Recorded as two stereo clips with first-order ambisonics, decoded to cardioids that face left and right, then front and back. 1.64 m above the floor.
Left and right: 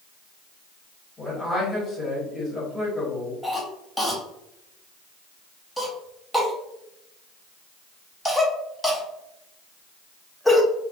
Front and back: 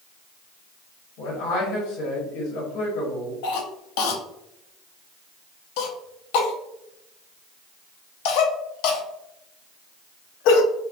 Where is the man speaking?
5° left, 1.2 m.